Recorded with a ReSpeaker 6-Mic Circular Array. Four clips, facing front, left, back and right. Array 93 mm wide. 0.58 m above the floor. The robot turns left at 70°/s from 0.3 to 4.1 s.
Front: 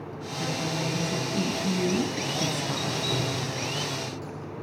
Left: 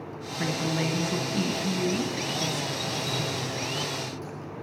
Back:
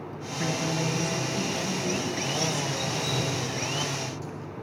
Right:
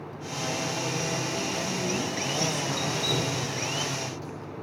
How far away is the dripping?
About 8.5 m.